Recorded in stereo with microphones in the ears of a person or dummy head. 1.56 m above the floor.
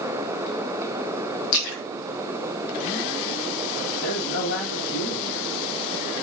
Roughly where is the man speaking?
Left.